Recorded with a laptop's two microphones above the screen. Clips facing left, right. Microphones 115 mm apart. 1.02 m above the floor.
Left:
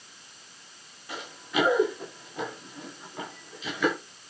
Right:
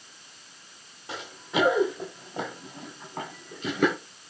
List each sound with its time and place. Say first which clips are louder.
1.1 s running footsteps: right 1 dB; 25° right (ahead or behind), 8 m; by 4.0 s 50° right (ahead or behind), 9.5 m